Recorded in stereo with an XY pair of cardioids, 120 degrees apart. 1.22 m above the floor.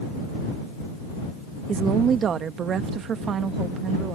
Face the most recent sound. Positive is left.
turn(degrees=-50)